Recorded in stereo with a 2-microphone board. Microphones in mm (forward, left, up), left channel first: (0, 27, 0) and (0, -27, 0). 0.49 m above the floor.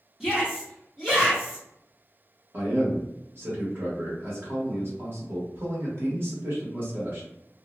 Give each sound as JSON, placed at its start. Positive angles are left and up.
{"t": 0.2, "sound": "a shout", "side_deg": -10, "distance_m": 1.1}
{"t": 2.5, "sound": "a man speaking", "side_deg": -45, "distance_m": 1.1}